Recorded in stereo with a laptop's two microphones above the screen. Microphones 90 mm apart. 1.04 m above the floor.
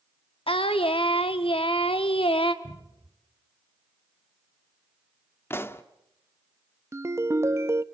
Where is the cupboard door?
80° right, 4 m.